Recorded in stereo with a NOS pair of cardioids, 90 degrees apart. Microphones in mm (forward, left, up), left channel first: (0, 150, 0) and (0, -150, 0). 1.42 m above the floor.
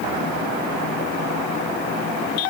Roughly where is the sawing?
I don't hear sawing.